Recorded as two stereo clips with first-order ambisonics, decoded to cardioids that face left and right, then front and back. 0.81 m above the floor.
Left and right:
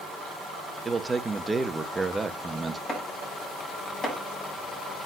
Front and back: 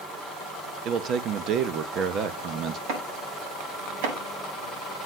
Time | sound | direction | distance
0.8 | a man speaking | 165° right | 0.8 m
2.9 | chopping | 165° left | 6 m